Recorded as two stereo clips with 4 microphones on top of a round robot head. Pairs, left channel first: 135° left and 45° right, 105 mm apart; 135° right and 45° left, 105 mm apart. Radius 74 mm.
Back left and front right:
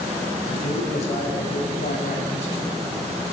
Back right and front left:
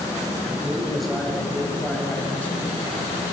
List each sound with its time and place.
0.5 s a man speaking: 130° left, 5.5 m; by 2.8 s 155° left, 5.5 m